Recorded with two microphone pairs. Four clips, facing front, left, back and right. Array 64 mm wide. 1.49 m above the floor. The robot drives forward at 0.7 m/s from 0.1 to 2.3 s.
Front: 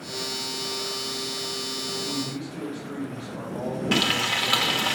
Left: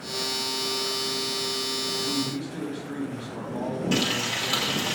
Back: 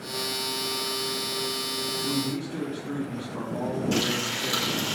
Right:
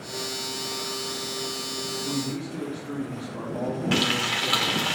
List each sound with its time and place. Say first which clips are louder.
1.9 s a man speaking: right 1 dB, back 3 dB; 175° left, 3.5 m
3.9 s frying: right 2 dB, front 3 dB; 35° right, 1.5 m